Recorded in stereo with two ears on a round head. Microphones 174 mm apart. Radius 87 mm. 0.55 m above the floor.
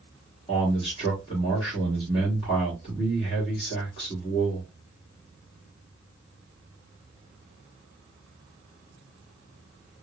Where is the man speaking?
30° left (ahead or behind), 1.5 m.